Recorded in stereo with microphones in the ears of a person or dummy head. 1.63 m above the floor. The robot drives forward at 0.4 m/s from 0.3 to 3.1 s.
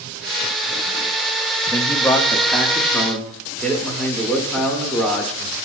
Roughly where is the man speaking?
Centre.